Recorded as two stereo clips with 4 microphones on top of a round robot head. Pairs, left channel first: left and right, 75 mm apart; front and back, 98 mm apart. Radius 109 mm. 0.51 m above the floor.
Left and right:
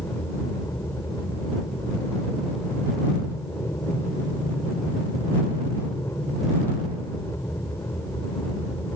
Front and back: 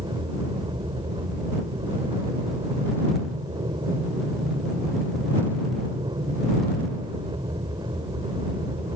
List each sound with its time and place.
0.0 s an aircraft: 150° left